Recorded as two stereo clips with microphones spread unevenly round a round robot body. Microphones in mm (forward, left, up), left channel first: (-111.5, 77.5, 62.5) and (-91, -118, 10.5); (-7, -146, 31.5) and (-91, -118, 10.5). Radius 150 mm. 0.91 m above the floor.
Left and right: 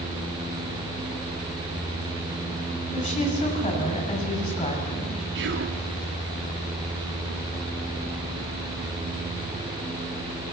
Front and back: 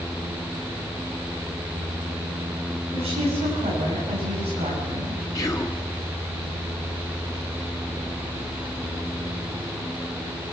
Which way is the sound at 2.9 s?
150° left.